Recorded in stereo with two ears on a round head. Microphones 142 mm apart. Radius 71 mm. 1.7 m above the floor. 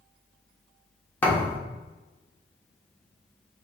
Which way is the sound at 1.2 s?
10° left (ahead or behind).